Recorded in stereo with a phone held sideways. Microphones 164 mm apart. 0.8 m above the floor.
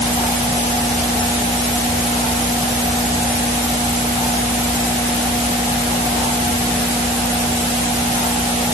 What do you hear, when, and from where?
Only background noise.